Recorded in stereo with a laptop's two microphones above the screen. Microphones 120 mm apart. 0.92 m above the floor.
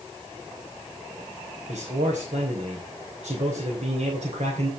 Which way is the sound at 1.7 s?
75° right (ahead or behind).